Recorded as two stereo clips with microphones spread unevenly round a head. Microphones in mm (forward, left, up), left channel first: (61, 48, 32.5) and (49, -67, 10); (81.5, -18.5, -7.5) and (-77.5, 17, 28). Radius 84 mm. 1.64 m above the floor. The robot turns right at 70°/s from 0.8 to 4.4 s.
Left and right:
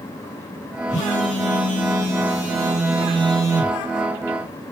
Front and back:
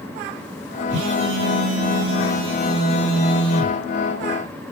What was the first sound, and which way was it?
A phone buzzing, 145° left.